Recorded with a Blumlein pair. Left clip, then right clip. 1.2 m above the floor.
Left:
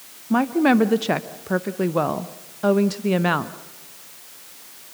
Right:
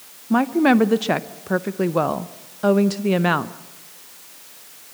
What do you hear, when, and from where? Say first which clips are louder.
0.3 s a woman speaking: right 1 dB; 5° right, 0.7 m